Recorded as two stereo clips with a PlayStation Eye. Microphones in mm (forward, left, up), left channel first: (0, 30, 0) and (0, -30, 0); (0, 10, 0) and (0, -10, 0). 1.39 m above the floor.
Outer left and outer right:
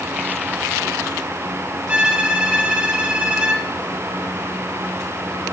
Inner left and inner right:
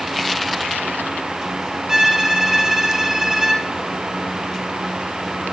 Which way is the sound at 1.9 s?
20° right (ahead or behind).